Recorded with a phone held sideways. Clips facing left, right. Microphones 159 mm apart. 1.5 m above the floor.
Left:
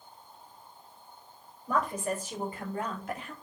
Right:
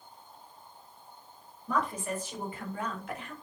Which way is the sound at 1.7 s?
50° left (ahead or behind).